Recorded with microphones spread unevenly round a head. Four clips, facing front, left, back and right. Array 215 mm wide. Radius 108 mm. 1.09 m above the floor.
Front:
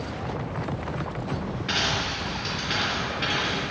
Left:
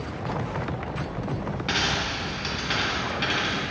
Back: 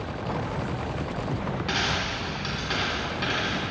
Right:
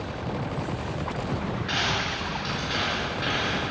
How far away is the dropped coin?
About 3 m.